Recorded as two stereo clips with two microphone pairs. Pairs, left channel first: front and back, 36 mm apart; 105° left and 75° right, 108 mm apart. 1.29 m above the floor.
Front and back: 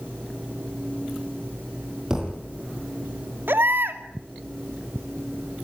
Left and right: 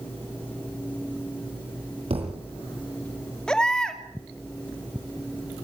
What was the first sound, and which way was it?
A thud, 100° right.